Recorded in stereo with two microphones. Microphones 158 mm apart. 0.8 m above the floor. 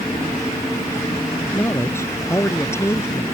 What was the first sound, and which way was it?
A man speaking, 15° left (ahead or behind).